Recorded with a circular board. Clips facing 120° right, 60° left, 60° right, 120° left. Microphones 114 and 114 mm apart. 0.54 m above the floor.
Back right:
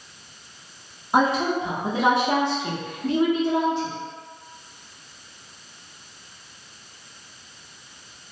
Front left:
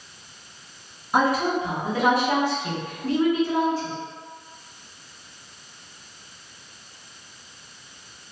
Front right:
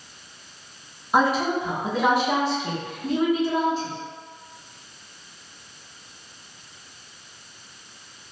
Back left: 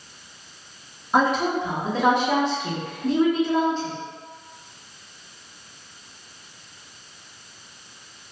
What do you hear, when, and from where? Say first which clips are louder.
1.1 s a woman speaking: back right 1 dB, even; 140° right, 0.8 m